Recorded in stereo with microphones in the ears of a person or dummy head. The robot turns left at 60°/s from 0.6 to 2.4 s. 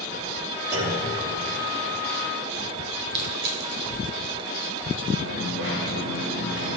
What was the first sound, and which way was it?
A clunk, 10° right (ahead or behind).